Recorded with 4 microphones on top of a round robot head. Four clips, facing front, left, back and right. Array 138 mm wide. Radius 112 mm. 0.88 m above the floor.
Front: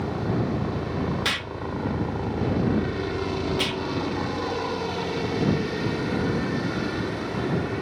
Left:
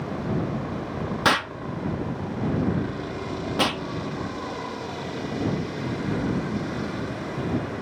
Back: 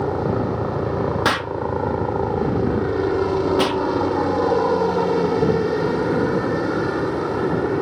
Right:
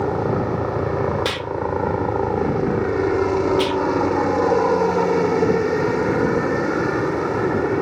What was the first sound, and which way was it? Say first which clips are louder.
A helicopter: right 8 dB, back 6 dB; 130° right.